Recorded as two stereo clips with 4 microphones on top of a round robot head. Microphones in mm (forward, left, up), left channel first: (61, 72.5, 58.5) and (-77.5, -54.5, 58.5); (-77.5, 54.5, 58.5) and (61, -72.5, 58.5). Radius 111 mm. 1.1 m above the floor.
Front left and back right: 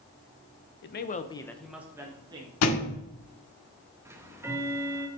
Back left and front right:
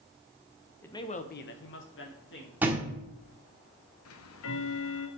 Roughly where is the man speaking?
Ahead left.